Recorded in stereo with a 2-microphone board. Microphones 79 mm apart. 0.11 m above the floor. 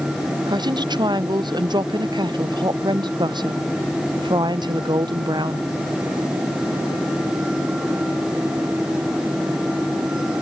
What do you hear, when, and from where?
0.5 s a woman speaking: 65° right (ahead or behind)